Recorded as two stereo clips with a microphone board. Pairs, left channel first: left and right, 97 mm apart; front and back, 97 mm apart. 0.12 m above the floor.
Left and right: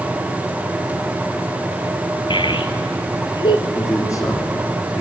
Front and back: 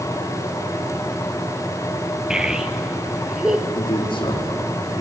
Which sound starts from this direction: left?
A child speaking, at 2.3 s.